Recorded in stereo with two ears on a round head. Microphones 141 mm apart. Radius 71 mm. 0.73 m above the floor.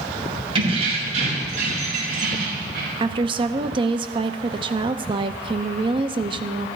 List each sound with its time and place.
0.6 s keys jangling: 35° right (ahead or behind), 3 m; by 2.9 s 60° right (ahead or behind), 5 m
3.0 s a woman speaking: 30° right (ahead or behind), 0.7 m